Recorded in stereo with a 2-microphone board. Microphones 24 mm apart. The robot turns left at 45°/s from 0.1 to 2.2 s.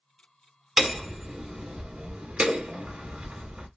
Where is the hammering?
5° right, 1.0 m; by 3.7 s 70° right, 1.0 m.